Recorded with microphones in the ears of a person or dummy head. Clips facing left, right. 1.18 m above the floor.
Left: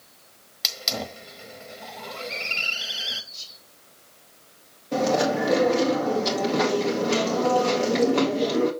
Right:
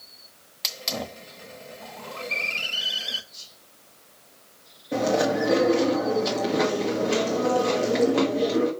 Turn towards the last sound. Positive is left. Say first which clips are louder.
# even
turn(degrees=-5)  # may be behind; listen again after turning